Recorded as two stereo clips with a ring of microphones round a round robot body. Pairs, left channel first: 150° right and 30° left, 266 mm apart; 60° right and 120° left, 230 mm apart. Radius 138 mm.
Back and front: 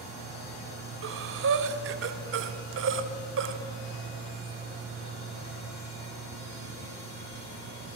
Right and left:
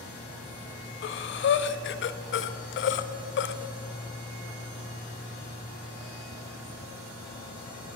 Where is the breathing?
20° right, 0.5 m.